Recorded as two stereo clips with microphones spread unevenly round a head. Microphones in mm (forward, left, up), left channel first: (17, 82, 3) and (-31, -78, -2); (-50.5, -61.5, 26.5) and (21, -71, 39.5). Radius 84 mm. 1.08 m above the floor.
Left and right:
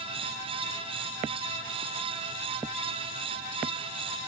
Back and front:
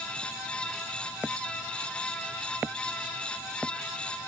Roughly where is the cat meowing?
I don't hear a cat meowing.